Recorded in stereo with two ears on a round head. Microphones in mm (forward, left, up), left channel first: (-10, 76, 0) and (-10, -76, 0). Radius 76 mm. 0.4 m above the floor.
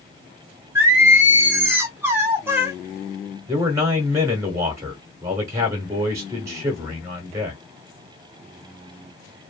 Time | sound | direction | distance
0.8 | singing | 15° right (ahead or behind) | 0.6 m
3.5 | a man speaking | 20° right (ahead or behind) | 0.8 m